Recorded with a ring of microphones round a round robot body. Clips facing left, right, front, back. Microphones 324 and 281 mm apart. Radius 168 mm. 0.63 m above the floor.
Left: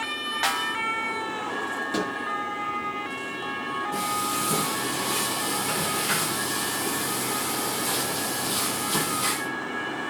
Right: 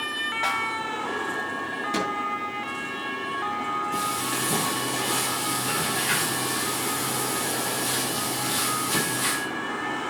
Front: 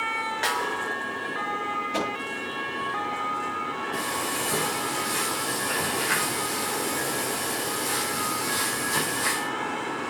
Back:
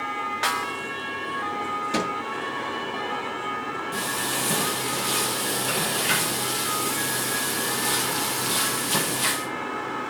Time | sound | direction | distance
0.4 | a snare drum | 105° left | 0.8 m
1.9 | a microwave | 170° right | 6.5 m
3.9 | frying | 175° right | 5.5 m